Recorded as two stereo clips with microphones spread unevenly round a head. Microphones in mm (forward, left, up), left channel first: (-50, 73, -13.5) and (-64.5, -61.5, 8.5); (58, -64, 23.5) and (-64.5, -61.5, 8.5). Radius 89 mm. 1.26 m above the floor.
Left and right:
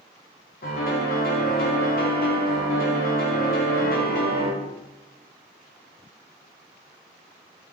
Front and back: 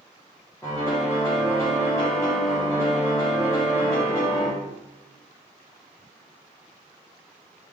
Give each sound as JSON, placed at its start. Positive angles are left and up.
{"t": 0.6, "sound": "a piano", "azimuth_deg": 75, "distance_m": 0.8}